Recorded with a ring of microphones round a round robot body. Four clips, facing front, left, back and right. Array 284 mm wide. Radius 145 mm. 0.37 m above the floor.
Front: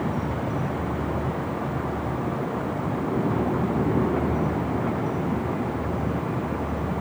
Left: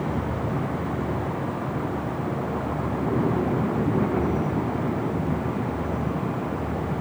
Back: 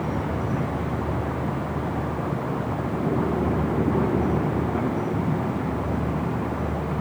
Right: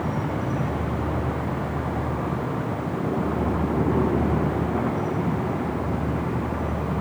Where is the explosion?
I don't hear an explosion.